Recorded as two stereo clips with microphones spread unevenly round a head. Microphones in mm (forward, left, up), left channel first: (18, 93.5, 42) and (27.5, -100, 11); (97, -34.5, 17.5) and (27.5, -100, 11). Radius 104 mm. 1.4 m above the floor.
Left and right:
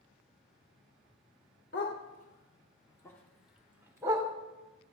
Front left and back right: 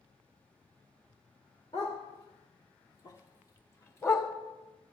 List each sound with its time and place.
1.7 s a dog barking: 95° left, 1.4 m; by 4.3 s 15° right, 1.5 m